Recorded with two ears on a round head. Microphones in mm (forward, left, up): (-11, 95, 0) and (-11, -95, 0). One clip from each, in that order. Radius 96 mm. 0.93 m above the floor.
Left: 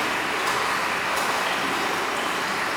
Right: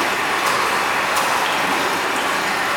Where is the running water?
40° right (ahead or behind), 1.8 m.